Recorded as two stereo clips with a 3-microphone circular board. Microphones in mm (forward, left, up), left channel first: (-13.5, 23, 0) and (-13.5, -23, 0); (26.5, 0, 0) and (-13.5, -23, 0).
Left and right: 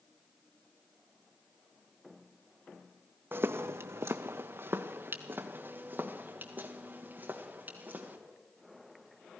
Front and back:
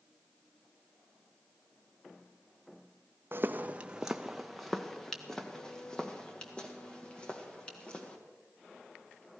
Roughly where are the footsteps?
Behind right.